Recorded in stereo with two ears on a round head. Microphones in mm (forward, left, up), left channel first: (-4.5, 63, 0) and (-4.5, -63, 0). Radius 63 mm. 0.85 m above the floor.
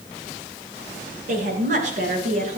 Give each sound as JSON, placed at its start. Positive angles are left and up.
{"t": 1.3, "sound": "a woman speaking", "side_deg": -60, "distance_m": 10.0}